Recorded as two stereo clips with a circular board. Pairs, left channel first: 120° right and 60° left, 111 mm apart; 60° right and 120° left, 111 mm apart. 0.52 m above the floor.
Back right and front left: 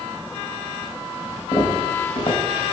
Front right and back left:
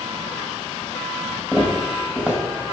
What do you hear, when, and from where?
1.5 s footsteps: 160° right, 1.9 m